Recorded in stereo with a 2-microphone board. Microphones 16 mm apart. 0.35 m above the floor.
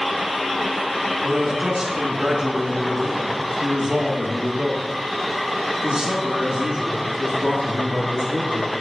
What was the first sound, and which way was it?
A man speaking, 25° right (ahead or behind).